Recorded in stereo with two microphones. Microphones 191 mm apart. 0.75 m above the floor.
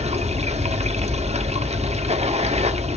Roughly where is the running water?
Right.